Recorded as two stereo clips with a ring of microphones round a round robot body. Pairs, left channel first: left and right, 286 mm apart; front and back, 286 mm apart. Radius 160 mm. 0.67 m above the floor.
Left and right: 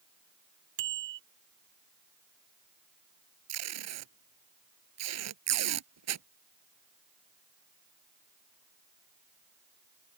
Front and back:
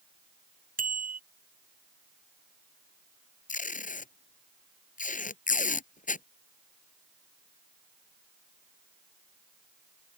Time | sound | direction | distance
0.8 | a bicycle bell | 120° right | ?
3.5 | tape being pulled | 60° right | ?